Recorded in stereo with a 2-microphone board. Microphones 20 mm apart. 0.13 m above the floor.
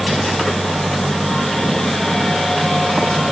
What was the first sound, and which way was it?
Only background noise.